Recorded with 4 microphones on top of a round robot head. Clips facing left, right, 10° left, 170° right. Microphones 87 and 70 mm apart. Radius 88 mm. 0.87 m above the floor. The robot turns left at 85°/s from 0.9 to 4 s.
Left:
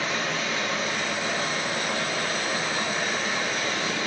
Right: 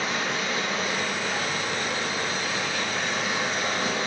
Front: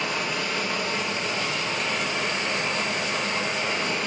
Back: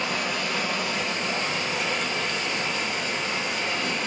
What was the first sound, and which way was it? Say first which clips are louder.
Running water: even, even; 165° right.